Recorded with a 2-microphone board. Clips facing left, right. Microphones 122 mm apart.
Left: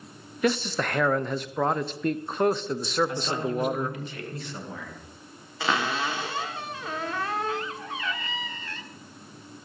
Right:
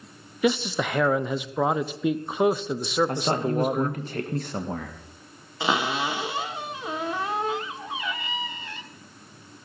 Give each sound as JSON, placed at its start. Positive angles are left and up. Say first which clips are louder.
{"t": 0.4, "sound": "a man speaking", "louder": "right 2 dB", "side_deg": -5, "distance_m": 0.6}
{"t": 3.1, "sound": "a man speaking", "louder": "right 4 dB", "side_deg": -45, "distance_m": 1.3}
{"t": 5.6, "sound": "a cupboard door", "louder": "right 2 dB", "side_deg": -20, "distance_m": 1.1}